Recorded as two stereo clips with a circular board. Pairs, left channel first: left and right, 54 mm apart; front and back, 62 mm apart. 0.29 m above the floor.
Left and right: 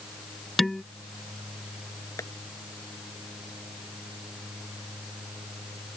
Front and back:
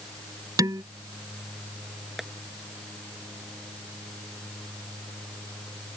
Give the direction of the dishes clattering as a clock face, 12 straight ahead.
6 o'clock.